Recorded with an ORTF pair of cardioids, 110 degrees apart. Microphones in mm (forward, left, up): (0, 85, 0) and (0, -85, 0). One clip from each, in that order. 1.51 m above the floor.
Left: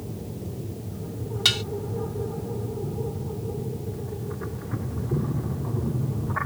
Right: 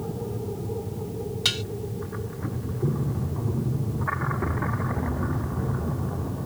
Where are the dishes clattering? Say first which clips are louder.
Left 4 dB; 15° left.